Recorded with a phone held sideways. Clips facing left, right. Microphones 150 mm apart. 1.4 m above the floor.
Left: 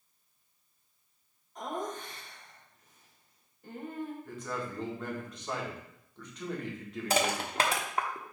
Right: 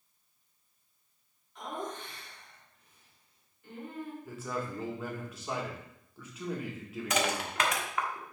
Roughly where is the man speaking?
Centre.